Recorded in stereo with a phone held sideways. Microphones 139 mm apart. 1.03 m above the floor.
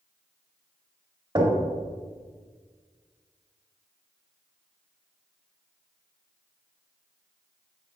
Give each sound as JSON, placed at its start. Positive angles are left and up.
{"t": 1.4, "sound": "knocking", "side_deg": -30, "distance_m": 2.5}